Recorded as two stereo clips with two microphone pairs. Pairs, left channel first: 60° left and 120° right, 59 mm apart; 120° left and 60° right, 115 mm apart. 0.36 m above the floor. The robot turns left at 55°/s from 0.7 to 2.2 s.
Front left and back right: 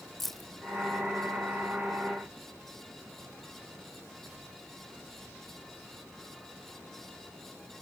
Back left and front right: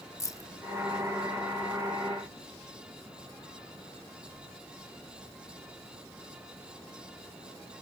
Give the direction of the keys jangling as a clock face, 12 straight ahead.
7 o'clock.